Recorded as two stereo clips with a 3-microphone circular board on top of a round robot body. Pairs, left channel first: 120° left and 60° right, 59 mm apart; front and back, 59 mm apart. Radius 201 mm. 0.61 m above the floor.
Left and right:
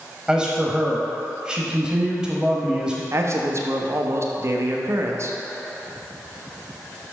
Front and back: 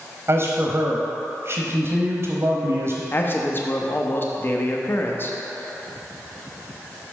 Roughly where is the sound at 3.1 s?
Ahead right.